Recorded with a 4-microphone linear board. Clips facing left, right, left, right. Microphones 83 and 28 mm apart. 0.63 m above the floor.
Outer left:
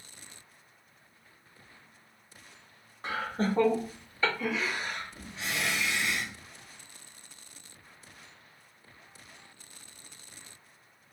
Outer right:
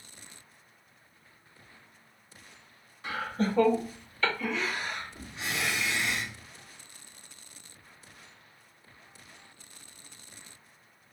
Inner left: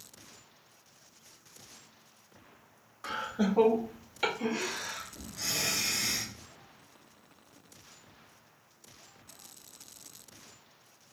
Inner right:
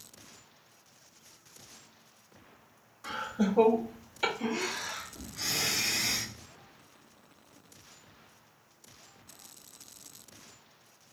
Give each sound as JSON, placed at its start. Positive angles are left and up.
{"t": 3.0, "sound": "laughter", "side_deg": 40, "distance_m": 1.2}